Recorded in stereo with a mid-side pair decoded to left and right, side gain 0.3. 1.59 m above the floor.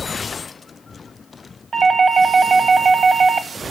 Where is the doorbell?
65° right, 1.8 m.